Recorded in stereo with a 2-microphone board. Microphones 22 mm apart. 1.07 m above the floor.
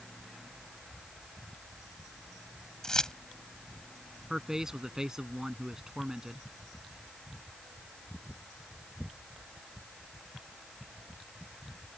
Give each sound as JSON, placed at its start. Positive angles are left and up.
{"t": 2.8, "sound": "keys jangling", "side_deg": 30}
{"t": 4.3, "sound": "a man speaking", "side_deg": -25}